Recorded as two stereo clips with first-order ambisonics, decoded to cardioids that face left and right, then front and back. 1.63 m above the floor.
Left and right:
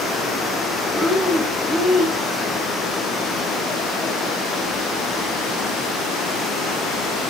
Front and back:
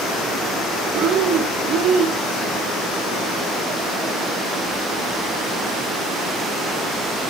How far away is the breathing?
About 1.4 m.